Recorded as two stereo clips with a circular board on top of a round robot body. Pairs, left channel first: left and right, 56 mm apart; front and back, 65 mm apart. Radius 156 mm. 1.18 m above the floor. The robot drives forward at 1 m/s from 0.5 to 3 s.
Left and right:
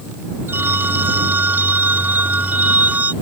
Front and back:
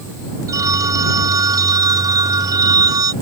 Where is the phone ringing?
145° right; by 3.1 s 155° right.